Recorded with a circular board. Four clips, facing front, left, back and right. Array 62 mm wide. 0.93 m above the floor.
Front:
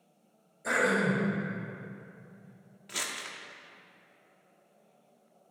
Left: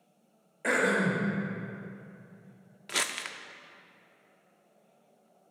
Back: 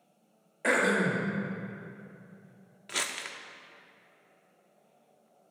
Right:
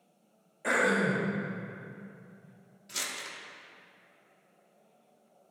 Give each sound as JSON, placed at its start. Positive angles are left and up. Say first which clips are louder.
{"t": 0.6, "sound": "throat clearing", "louder": "even, back 1 dB", "azimuth_deg": 160, "distance_m": 2.5}
{"t": 2.9, "sound": "crumpling", "louder": "left 6 dB, back 3 dB", "azimuth_deg": 110, "distance_m": 0.6}